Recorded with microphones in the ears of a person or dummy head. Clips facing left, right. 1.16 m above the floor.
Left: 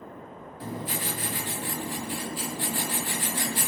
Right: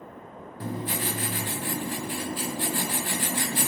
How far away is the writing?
About 2.5 m.